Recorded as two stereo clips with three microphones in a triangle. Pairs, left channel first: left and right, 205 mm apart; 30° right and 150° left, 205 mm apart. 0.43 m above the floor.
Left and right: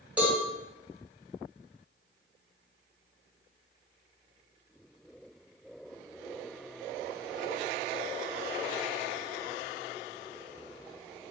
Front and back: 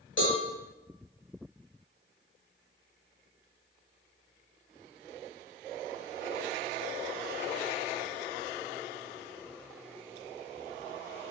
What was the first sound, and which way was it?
A cowbell, 5° right.